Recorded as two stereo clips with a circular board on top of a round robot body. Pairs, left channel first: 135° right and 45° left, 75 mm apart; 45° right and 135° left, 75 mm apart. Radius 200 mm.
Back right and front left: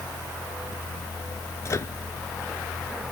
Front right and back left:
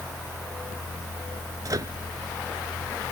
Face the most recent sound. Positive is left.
turn(degrees=175)